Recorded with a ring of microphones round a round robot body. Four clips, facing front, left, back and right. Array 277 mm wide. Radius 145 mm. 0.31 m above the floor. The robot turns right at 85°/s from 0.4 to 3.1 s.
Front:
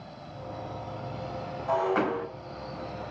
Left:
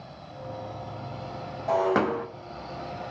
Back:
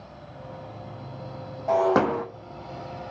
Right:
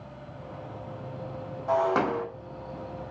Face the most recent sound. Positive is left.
turn(degrees=-100)